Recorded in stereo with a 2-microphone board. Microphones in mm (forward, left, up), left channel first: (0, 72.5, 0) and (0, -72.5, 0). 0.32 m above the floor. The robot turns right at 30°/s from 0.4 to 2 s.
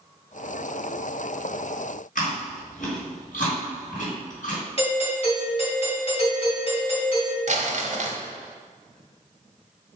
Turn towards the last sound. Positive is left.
turn(degrees=-55)  # may be behind; listen again after turning